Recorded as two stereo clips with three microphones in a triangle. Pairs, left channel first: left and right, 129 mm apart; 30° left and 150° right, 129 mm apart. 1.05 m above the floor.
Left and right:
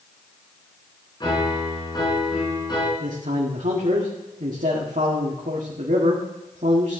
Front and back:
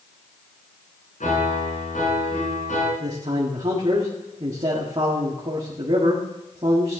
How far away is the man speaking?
About 1.8 m.